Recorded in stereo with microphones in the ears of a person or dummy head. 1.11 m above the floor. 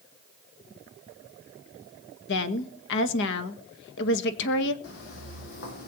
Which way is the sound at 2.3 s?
60° left (ahead or behind).